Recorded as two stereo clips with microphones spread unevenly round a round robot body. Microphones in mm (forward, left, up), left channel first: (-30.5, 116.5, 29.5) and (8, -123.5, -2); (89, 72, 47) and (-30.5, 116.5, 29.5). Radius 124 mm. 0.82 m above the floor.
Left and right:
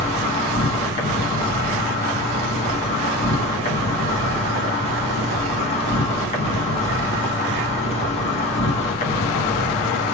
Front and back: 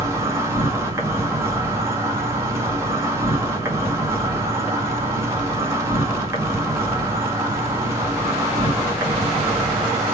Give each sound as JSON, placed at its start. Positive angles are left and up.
{"t": 0.0, "sound": "an insect", "azimuth_deg": 150, "distance_m": 1.2}